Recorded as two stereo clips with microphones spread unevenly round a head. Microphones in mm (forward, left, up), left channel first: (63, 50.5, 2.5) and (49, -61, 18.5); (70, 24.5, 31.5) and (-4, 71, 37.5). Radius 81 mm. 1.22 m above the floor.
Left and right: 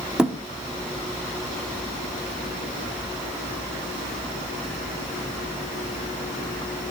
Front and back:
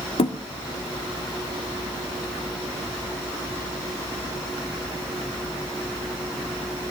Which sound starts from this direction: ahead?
A thud, at 0.2 s.